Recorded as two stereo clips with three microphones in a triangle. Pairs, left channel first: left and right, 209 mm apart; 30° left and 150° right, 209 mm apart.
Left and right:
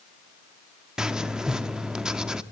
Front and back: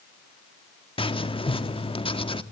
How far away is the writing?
About 1.3 m.